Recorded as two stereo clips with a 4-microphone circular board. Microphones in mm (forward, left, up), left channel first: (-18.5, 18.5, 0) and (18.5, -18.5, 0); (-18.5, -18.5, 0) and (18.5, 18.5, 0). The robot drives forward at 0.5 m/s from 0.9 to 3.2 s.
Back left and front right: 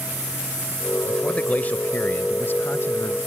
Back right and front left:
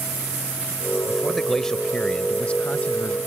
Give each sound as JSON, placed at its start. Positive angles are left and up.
{"t": 1.1, "sound": "a man speaking", "azimuth_deg": 120}